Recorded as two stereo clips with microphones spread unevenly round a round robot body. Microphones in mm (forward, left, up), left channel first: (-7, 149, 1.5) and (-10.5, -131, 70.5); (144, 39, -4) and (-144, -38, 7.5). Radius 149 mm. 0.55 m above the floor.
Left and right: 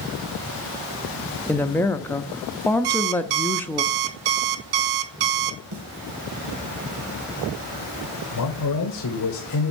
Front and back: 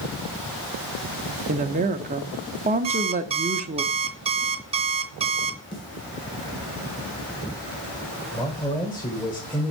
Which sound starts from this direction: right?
An alarm clock, at 2.8 s.